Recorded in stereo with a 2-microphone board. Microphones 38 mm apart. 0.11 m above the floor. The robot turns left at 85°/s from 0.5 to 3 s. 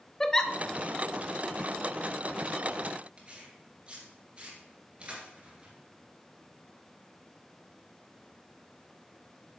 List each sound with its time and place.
0.2 s a giggle: 15° left (ahead or behind), 0.6 m
3.2 s tearing paper: 30° right (ahead or behind), 2.5 m